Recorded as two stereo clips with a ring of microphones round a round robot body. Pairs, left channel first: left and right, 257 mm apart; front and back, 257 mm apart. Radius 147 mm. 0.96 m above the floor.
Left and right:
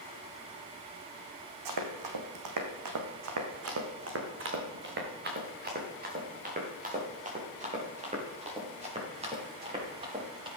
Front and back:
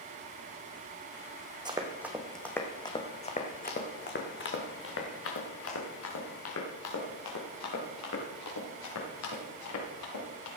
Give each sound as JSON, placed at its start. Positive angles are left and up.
{"t": 1.6, "sound": "running footsteps", "azimuth_deg": -105, "distance_m": 2.5}